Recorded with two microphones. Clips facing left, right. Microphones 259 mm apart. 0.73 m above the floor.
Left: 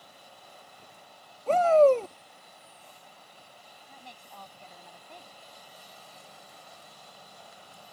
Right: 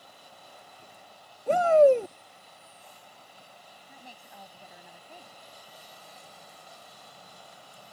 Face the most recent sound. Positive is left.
turn(degrees=-10)  # may be behind; listen again after turning